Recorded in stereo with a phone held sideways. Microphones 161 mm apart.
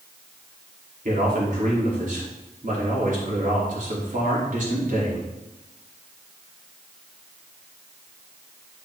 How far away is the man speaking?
About 3.5 m.